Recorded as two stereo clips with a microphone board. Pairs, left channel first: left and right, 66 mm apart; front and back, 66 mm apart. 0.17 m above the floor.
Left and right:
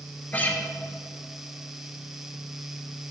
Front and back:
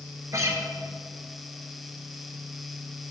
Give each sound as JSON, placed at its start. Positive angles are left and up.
{"t": 0.3, "sound": "a guitar", "azimuth_deg": 150, "distance_m": 2.5}